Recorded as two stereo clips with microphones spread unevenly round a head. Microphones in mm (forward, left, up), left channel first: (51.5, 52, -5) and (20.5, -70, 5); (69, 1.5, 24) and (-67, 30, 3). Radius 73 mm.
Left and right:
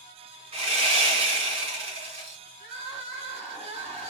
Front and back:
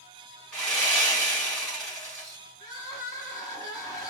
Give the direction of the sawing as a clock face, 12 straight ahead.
3 o'clock.